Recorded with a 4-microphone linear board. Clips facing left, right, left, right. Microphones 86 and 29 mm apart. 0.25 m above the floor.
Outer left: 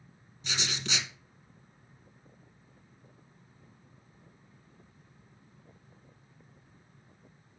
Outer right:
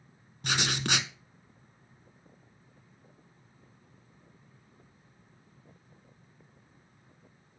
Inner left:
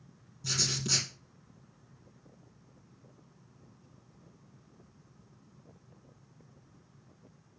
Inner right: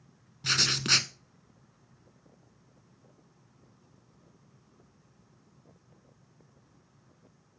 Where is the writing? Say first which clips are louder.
Outer right 6 dB, inner right 6 dB; 60° right (ahead or behind), 0.8 m.